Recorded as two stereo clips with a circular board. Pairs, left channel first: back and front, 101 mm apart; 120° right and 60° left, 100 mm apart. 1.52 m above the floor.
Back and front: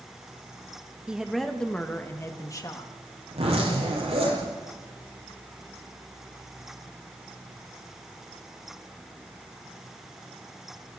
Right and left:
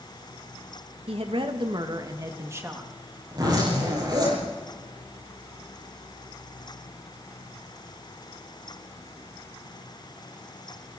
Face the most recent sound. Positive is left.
turn(degrees=10)